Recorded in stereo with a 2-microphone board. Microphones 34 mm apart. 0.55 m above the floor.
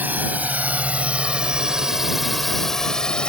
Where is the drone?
60° right (ahead or behind); by 3.3 s 25° left (ahead or behind).